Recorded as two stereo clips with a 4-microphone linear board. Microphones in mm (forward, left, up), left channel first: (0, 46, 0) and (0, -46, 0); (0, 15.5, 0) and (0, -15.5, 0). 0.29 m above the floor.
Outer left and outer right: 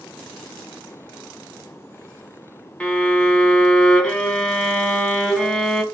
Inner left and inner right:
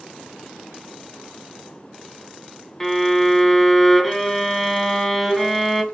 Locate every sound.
2.8 s a violin: 10° left (ahead or behind), 0.7 m